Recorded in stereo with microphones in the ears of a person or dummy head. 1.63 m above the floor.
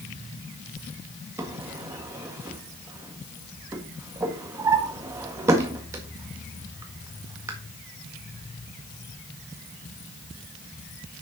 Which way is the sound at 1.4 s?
15° right (ahead or behind).